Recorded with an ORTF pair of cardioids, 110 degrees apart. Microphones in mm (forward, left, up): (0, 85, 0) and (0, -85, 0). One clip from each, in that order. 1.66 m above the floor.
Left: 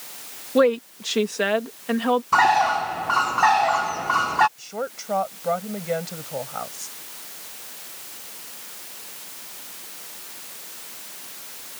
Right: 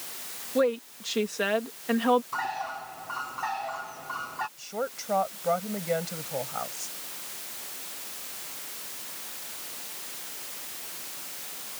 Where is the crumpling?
No crumpling in this recording.